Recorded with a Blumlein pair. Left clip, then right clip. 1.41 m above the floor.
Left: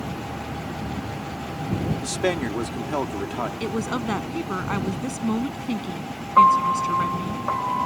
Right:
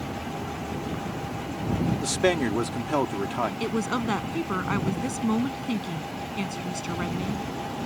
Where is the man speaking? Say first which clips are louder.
Right 2 dB; 5° right.